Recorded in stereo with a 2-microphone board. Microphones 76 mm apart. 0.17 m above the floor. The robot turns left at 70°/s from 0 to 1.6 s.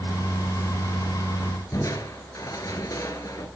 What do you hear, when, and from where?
1.7 s crushing: 50° left (ahead or behind), 1.5 m